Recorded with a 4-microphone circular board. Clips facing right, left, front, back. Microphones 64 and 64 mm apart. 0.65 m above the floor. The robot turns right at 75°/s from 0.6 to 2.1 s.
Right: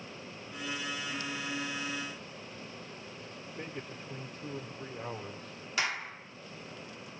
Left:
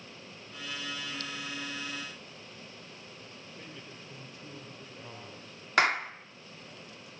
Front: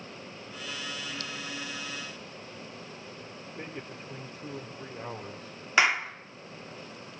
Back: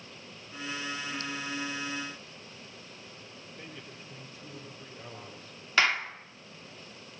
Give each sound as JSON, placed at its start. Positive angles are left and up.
{"t": 3.6, "sound": "a man speaking", "azimuth_deg": -40, "distance_m": 3.0}
{"t": 5.8, "sound": "a clap", "azimuth_deg": 75, "distance_m": 1.2}